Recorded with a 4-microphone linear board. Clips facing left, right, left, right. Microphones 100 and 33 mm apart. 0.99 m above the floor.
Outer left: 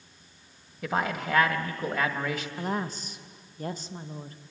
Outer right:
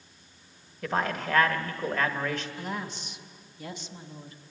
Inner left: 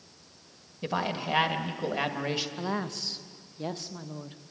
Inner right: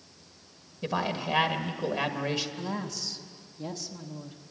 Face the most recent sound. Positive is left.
turn(degrees=40)  # may be behind; listen again after turning